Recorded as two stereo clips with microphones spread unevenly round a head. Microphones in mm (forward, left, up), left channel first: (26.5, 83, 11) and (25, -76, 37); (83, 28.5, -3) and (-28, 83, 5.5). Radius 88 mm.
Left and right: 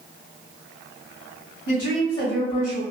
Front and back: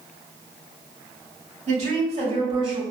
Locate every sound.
1.7 s a woman speaking: 135° left, 1.6 m; by 2.8 s 110° left, 1.9 m